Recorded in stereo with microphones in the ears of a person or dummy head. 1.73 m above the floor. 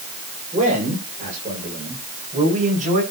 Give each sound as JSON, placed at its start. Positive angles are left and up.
{"t": 0.5, "sound": "a man speaking", "side_deg": -35, "distance_m": 8.0}